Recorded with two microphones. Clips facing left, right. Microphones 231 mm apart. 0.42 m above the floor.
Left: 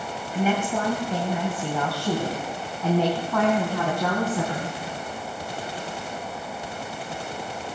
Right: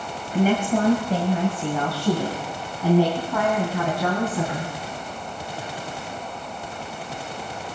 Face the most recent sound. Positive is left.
turn(degrees=0)  # may be behind; listen again after turning